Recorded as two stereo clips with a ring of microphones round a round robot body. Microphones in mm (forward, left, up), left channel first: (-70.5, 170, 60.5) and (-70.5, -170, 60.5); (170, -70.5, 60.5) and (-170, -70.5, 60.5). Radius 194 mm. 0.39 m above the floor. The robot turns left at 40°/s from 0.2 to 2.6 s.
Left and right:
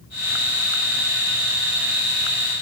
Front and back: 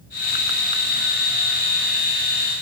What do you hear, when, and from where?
Only background noise.